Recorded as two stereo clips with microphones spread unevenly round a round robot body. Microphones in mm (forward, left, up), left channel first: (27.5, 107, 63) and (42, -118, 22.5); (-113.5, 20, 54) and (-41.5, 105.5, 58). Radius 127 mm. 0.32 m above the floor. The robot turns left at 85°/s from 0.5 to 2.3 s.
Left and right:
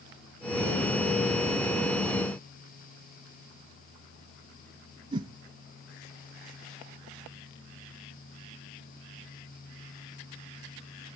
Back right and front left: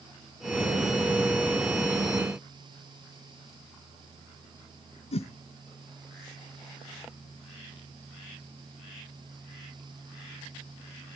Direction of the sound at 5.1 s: 160° right.